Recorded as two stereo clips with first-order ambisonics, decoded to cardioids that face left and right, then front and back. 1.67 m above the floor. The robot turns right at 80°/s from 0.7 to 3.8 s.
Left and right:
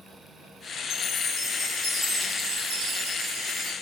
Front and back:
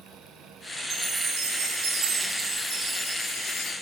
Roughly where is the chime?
Behind left.